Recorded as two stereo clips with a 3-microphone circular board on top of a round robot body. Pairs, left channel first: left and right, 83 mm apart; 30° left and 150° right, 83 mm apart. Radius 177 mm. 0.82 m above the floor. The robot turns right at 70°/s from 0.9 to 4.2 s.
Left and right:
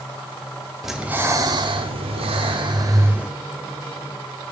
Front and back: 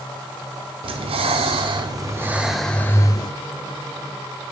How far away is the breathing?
About 0.9 m.